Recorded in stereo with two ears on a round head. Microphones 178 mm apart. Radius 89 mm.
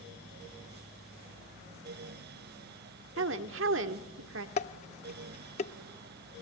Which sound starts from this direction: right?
A woman speaking, at 3.2 s.